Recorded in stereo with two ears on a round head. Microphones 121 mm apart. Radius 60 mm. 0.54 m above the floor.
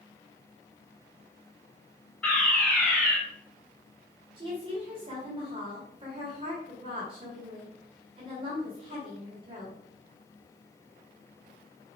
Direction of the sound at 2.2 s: 5° left (ahead or behind).